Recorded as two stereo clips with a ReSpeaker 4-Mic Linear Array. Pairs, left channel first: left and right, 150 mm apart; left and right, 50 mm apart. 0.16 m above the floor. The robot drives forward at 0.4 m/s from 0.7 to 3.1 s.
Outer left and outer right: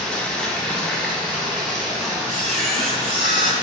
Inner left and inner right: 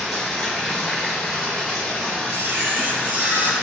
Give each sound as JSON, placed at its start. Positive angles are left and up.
{"t": 0.0, "sound": "running water", "side_deg": 5, "distance_m": 0.8}
{"t": 2.3, "sound": "a camera shutter", "side_deg": -60, "distance_m": 0.6}